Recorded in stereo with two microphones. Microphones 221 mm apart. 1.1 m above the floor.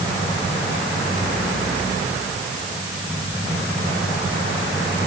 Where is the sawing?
I don't hear sawing.